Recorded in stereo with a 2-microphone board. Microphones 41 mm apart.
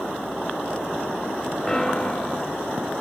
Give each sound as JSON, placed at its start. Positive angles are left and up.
{"t": 1.7, "sound": "a piano", "side_deg": 20, "distance_m": 3.0}